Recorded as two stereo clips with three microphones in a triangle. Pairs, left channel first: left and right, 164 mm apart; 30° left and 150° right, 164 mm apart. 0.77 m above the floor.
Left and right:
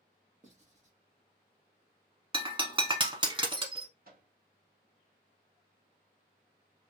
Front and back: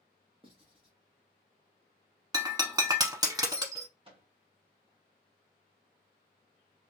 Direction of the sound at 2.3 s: 105° right.